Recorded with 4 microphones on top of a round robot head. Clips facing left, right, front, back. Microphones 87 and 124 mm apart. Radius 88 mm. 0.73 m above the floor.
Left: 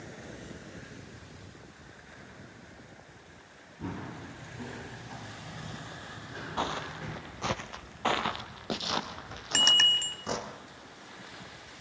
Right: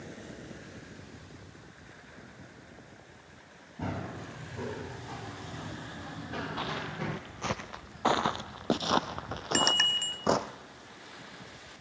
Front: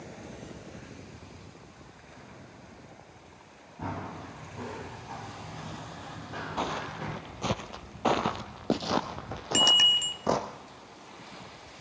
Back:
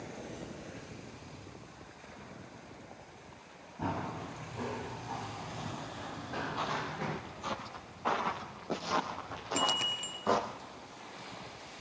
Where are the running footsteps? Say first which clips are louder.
Right 2 dB, back 1 dB; 85° right, 9 m.